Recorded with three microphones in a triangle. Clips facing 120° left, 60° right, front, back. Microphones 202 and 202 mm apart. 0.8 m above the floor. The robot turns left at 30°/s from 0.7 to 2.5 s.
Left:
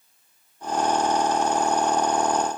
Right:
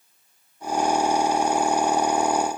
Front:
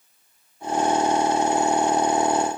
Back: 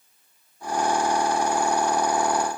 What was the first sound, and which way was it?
Only background noise.